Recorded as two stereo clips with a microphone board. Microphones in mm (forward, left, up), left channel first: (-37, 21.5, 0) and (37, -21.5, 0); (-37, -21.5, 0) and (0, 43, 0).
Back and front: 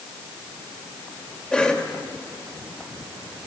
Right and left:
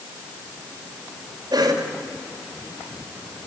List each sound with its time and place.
1.5 s a cough: 70° left, 3 m